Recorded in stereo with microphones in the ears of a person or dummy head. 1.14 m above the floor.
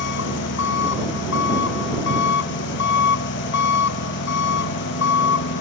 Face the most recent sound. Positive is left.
turn(degrees=60)  # may be behind; listen again after turning